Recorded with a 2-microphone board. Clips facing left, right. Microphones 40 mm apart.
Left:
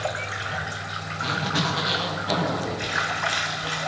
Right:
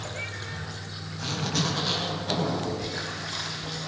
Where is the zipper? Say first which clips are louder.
Left 4 dB; 20° left (ahead or behind), 5.5 m.